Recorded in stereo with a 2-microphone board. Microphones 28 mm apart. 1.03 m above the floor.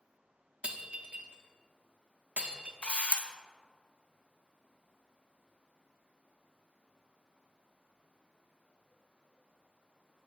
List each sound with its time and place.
0.6 s breaking glass: 45° right (ahead or behind), 0.7 m
2.8 s a camera shutter: 45° left (ahead or behind), 0.5 m